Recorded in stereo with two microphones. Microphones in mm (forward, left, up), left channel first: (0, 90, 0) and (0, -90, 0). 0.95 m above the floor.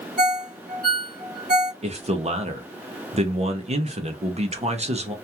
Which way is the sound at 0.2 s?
55° right (ahead or behind).